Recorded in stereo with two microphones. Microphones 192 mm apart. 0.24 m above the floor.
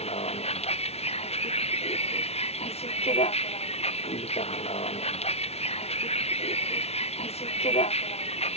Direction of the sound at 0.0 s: 35° left (ahead or behind).